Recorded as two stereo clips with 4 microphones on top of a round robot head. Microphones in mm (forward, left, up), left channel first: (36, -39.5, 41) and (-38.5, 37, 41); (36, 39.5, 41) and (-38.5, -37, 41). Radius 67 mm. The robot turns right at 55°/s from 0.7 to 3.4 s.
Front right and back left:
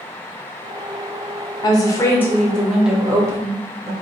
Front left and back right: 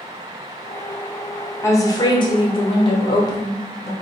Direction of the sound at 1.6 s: 10° right.